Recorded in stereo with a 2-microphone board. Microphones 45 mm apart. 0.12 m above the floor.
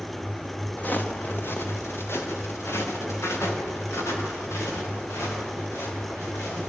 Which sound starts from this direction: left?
Footsteps, at 0.8 s.